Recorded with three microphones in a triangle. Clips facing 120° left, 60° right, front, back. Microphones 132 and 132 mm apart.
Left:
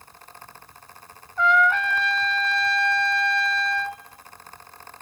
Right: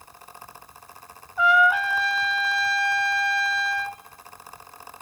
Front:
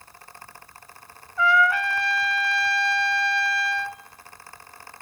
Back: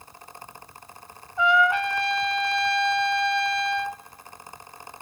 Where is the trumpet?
135° right, 0.6 m.